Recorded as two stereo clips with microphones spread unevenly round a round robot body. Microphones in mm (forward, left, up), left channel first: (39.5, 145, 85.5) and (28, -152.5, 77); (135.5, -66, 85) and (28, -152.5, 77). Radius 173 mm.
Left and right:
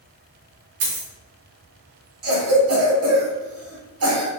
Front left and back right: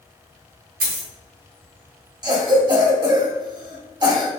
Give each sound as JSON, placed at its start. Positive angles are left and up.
{"t": 0.8, "sound": "a dropped coin", "azimuth_deg": -135, "distance_m": 1.0}
{"t": 2.2, "sound": "a cough", "azimuth_deg": -90, "distance_m": 1.2}